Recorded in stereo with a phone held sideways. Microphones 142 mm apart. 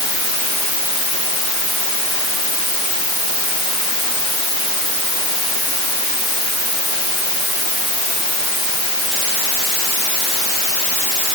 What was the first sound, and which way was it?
Only background noise.